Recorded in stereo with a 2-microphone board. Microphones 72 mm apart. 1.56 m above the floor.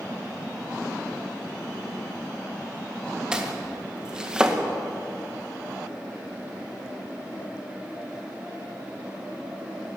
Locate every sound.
3.3 s chopping: 10° right (ahead or behind), 1.9 m